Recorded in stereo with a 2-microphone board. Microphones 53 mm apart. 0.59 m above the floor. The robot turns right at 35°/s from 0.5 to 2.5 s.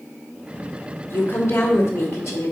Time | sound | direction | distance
1.1 | a woman speaking | 55° left | 2 m